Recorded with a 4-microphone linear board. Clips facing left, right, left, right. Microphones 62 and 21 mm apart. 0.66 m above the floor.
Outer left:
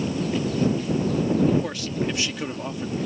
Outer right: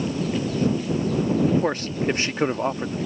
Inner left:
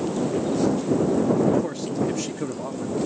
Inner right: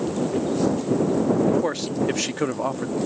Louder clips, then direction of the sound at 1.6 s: Outer right 4 dB, inner right 2 dB; 40° right (ahead or behind).